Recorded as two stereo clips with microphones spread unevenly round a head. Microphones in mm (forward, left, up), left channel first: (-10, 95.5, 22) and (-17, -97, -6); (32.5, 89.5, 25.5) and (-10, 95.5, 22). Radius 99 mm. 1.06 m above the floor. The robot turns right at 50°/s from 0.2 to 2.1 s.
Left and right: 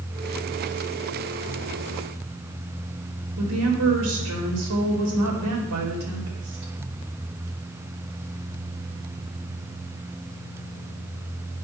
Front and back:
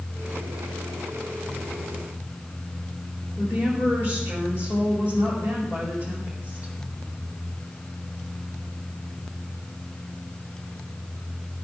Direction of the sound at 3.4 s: 80° right.